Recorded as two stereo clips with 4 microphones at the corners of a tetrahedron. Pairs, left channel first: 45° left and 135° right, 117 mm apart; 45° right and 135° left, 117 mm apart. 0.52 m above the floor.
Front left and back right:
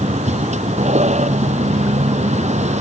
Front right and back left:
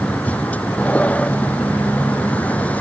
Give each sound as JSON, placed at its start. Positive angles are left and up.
{"t": 0.0, "sound": "a vehicle", "azimuth_deg": -125}